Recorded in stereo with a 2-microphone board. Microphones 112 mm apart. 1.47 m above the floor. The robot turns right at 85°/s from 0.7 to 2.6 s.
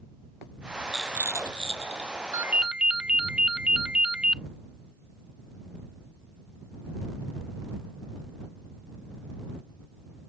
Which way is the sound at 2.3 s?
25° right (ahead or behind).